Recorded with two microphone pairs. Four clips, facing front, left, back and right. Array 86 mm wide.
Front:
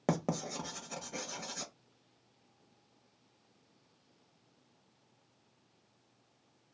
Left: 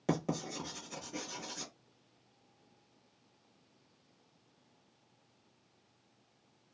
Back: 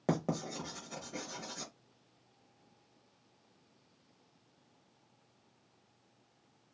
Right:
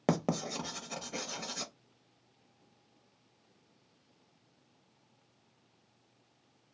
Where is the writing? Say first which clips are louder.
Right 3 dB, even; 75° right, 0.6 m.